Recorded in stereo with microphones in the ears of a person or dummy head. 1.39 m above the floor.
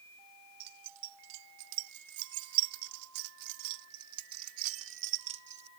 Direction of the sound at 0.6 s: 55° right (ahead or behind).